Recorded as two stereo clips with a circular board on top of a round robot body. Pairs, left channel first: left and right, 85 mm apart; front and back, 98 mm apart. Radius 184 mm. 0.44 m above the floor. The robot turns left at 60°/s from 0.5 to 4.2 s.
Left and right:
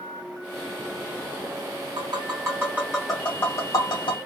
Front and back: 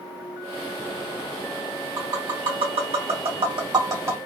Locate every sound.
2.0 s tapping: 115° right, 2.5 m; by 4.2 s 110° left, 2.5 m